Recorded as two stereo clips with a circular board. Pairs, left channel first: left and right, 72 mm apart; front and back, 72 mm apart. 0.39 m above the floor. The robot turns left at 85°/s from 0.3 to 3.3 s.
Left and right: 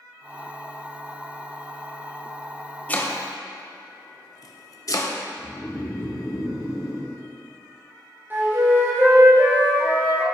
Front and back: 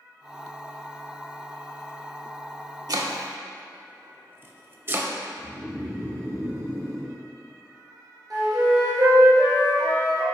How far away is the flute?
About 1.9 m.